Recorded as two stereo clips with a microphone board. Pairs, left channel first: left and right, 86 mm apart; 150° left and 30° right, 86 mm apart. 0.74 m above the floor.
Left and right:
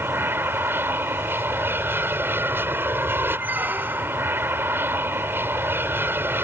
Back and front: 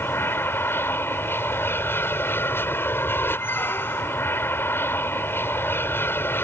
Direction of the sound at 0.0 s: 150° right.